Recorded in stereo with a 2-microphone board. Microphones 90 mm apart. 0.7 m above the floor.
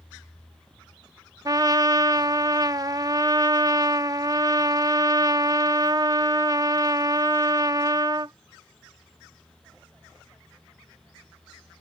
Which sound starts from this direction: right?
A trumpet, at 1.4 s.